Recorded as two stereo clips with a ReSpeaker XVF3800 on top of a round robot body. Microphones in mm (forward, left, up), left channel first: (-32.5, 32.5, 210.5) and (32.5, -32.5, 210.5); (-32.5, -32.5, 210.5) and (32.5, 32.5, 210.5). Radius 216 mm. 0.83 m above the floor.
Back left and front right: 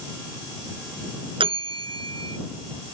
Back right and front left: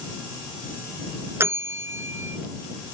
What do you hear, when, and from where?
1.4 s a bell: 20° right